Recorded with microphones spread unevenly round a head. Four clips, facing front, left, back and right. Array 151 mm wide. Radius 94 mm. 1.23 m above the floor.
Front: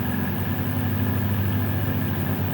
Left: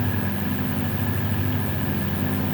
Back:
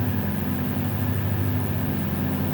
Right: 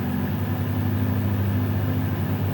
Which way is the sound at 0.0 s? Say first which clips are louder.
Even, even; 125° left.